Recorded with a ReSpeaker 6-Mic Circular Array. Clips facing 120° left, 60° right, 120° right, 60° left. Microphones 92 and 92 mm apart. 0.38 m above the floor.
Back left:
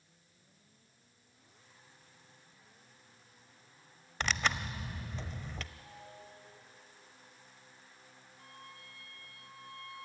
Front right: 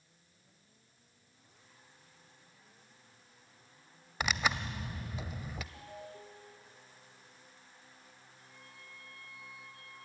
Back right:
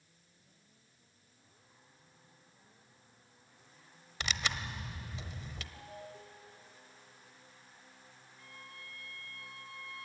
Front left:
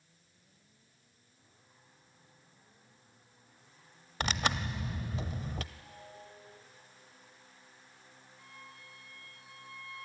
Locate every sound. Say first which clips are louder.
4.2 s tearing paper: front right 1 dB, front left 5 dB; 20° left, 0.7 m
5.7 s a ringtone: front right 4 dB, back right 3 dB; 70° right, 7.5 m
8.4 s a violin: back left 5 dB, back right 1 dB; 125° left, 3 m